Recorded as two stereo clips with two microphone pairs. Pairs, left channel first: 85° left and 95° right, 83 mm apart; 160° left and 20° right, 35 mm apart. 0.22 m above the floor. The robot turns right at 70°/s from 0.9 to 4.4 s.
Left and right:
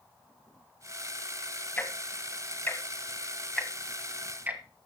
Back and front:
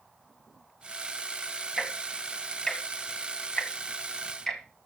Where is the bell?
No bell in this recording.